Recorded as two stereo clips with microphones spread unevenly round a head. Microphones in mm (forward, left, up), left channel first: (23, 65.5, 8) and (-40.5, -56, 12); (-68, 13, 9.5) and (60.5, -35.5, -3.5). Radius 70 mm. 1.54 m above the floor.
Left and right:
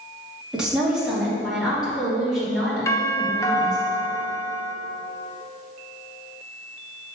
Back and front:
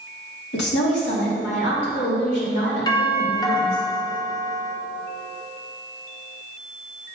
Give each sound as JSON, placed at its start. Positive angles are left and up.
{"t": 0.5, "sound": "a woman speaking", "azimuth_deg": 160, "distance_m": 2.5}
{"t": 2.9, "sound": "a doorbell", "azimuth_deg": 110, "distance_m": 0.8}